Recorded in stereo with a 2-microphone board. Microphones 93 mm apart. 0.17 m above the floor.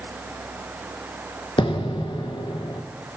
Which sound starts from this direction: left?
An explosion, at 1.6 s.